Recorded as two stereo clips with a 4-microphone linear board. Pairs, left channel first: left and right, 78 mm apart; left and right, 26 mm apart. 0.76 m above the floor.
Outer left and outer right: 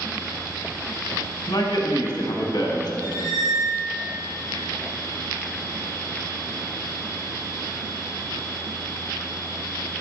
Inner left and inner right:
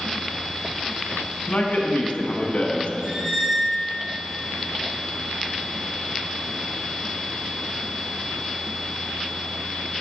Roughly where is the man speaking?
Left.